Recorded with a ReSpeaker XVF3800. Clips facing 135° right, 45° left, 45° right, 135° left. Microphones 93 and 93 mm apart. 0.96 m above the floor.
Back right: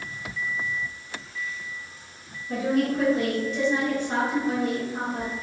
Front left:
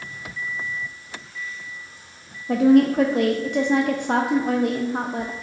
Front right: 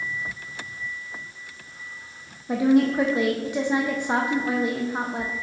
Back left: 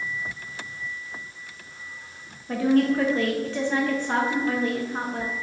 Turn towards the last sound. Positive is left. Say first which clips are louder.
# front left 9 dB, front right 2 dB
turn(degrees=30)